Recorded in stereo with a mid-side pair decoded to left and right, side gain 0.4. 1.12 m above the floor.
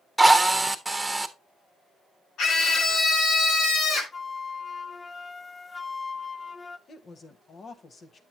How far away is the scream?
About 3.5 m.